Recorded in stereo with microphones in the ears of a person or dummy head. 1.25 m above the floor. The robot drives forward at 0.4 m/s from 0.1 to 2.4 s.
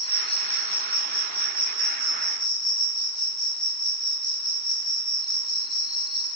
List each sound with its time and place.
0.0 s an insect: 35° left (ahead or behind), 2 m; by 6.3 s 25° left (ahead or behind), 2.5 m